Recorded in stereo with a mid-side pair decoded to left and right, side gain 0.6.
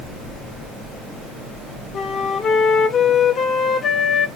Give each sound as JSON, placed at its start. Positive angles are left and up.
{"t": 1.9, "sound": "a flute", "azimuth_deg": 45, "distance_m": 0.6}